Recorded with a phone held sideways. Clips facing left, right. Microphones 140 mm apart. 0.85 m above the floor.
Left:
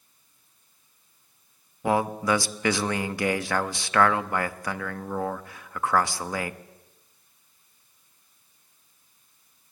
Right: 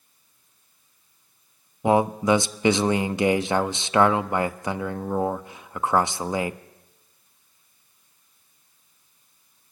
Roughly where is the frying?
No frying in this recording.